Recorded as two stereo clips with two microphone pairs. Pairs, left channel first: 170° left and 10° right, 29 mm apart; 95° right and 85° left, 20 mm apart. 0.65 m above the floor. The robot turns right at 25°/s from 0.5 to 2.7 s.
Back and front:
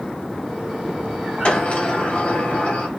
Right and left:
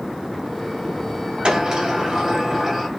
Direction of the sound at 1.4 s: 125° left.